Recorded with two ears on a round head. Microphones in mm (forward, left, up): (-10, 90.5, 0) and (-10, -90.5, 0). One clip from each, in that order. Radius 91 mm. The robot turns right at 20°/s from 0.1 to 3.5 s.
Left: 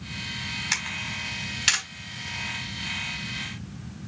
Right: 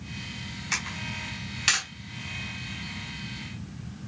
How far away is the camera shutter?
About 4.5 m.